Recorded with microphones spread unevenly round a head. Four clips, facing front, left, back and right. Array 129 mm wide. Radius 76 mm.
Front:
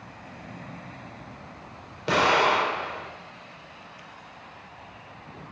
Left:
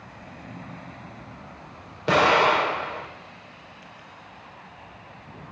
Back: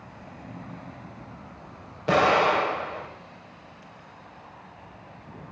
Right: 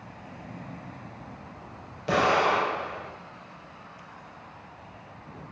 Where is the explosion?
60° left, 6.5 m.